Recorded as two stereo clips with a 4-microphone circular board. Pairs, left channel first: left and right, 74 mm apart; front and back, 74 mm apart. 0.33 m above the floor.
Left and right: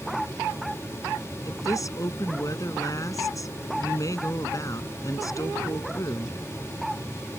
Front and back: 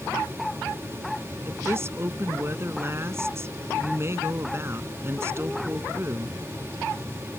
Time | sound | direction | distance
1.4 | a woman speaking | 130° left | ?